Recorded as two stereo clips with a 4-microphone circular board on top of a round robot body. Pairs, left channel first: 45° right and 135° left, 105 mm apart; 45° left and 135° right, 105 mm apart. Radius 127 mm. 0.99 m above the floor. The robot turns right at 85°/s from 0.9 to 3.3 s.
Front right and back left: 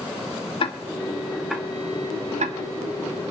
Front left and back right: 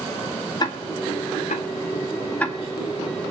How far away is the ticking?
About 2.0 m.